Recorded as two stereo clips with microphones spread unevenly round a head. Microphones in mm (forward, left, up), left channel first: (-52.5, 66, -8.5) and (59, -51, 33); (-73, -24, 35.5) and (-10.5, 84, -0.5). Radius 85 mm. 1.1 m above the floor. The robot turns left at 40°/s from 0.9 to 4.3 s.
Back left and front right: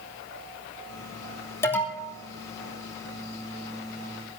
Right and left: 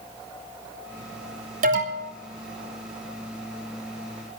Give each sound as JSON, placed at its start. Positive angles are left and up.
{"t": 1.6, "sound": "an alarm", "azimuth_deg": 60, "distance_m": 3.0}